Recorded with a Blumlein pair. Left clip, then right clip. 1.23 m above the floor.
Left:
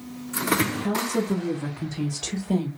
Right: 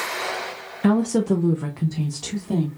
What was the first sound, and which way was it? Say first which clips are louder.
A woman speaking: right 4 dB; 45° right.